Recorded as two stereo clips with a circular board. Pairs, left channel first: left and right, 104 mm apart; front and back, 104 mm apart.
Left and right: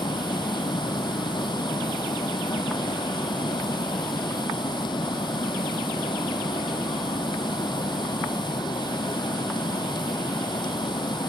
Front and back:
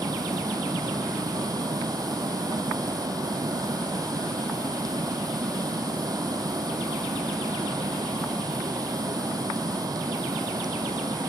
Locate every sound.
0.0 s running water: 130° left, 2.5 m